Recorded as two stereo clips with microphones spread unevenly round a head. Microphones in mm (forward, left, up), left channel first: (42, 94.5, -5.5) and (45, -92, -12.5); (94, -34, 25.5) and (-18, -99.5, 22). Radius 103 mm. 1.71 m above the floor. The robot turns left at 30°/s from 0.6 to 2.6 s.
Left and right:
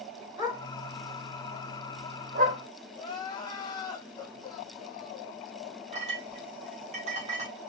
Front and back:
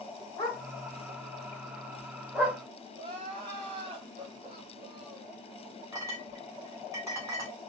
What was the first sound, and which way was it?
A dog barking, 15° right.